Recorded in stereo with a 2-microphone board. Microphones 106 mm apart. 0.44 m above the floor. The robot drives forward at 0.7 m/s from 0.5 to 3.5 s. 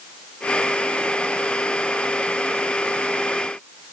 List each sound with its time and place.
Only background noise.